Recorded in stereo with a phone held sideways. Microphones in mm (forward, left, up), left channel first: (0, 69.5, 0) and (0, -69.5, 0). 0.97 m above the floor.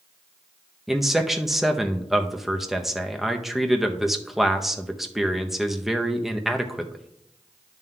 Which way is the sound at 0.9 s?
Centre (ahead or behind).